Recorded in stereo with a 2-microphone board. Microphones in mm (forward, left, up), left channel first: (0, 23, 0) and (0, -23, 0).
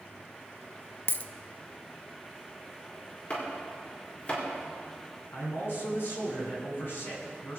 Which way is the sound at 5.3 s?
60° left (ahead or behind).